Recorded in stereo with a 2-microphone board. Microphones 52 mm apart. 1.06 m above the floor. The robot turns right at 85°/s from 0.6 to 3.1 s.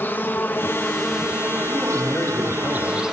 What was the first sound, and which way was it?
An insect, 135° left.